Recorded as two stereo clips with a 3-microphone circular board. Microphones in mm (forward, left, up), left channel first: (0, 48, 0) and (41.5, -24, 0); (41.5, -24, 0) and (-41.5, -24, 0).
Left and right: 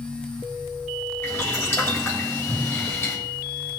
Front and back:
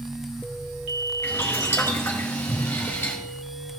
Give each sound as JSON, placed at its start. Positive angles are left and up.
{"t": 1.2, "sound": "boiling", "azimuth_deg": 60, "distance_m": 3.0}